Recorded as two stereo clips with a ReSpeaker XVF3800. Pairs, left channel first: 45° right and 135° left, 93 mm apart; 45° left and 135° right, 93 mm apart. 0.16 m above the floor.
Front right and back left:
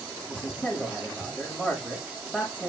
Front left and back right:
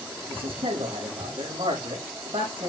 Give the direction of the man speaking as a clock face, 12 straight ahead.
5 o'clock.